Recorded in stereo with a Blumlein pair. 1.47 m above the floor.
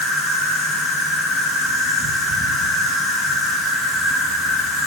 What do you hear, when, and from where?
0.0 s an insect: 10° left, 5.5 m